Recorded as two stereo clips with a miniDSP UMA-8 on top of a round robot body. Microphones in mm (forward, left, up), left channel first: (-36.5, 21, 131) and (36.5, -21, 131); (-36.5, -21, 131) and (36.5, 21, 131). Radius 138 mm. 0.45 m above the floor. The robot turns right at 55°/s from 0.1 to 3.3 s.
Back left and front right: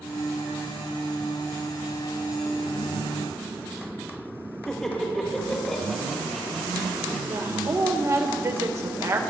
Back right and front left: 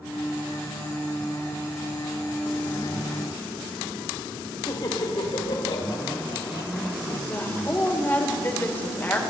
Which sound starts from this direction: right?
A woman speaking, at 7.3 s.